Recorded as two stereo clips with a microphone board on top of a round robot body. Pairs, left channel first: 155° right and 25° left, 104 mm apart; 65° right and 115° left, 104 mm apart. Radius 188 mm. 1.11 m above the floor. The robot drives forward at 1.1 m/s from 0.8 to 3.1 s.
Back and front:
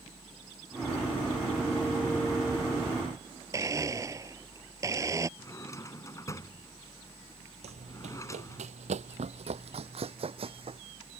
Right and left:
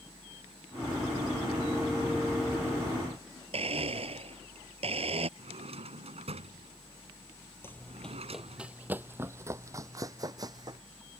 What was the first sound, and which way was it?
A blender, 85° left.